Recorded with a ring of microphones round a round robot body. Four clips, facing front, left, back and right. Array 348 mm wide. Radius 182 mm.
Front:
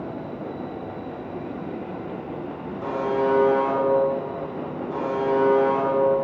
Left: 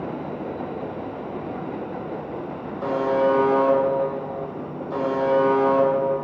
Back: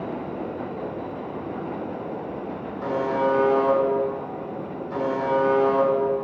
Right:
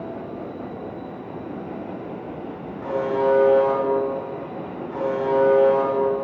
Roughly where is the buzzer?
Left.